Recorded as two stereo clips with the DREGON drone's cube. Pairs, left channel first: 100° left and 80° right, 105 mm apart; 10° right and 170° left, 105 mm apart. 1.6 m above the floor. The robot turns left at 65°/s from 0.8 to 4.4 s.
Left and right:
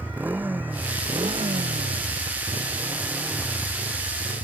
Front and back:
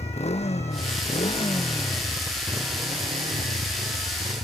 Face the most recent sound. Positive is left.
turn(degrees=120)